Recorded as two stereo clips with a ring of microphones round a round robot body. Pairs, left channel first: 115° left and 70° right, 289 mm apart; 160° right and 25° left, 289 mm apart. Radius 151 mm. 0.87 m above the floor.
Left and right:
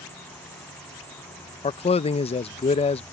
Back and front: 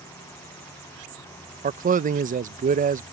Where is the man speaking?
60° left.